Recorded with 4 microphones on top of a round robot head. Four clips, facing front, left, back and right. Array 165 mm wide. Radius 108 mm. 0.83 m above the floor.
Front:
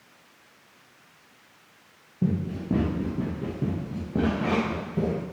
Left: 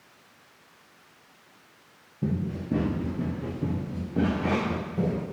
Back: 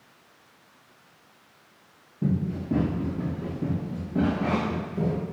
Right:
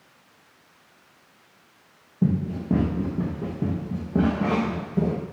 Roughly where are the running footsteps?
Ahead right.